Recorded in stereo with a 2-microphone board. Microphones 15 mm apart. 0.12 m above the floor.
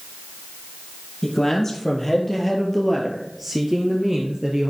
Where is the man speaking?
30° left (ahead or behind), 2.5 m; by 4.7 s 25° right (ahead or behind), 2 m.